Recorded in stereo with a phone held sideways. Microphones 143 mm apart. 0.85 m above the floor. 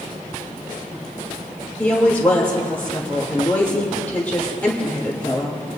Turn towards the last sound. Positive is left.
turn(degrees=10)  # may be behind; listen again after turning